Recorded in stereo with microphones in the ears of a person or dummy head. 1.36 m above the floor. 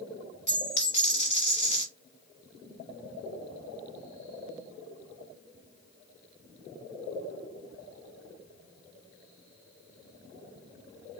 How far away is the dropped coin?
About 1.4 m.